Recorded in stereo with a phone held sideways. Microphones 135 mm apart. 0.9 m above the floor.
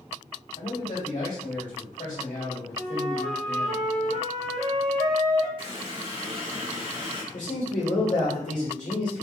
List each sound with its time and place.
0.6 s a man speaking: 70° left (ahead or behind), 2 m
2.8 s a flute: 65° right (ahead or behind), 1.5 m
5.6 s a running tap: 40° right (ahead or behind), 1.7 m
7.3 s a man speaking: 70° left (ahead or behind), 1.9 m